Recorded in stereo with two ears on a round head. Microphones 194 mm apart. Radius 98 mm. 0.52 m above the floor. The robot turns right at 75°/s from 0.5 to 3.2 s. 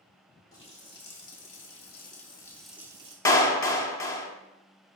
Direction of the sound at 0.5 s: 20° left.